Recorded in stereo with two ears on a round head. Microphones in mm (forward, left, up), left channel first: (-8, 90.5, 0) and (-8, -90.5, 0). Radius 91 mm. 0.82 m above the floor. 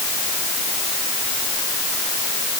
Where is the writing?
No writing in this recording.